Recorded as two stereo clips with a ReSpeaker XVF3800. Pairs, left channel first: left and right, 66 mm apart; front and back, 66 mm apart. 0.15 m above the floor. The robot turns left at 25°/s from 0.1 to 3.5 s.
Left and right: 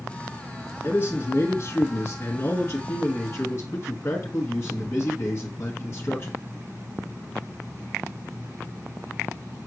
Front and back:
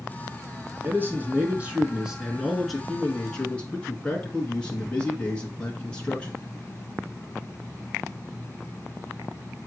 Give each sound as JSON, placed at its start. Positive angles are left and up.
{"t": 0.8, "sound": "a man speaking", "azimuth_deg": 135, "distance_m": 1.8}